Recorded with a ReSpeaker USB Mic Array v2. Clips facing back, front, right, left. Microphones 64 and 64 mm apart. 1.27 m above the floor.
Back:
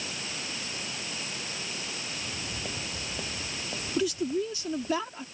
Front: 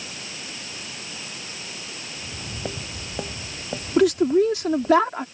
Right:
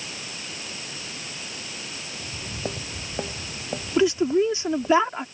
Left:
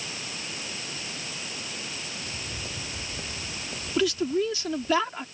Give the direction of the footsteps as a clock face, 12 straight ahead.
2 o'clock.